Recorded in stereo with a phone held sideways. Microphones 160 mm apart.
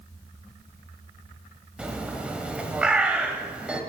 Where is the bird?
5° right (ahead or behind), 1.5 m.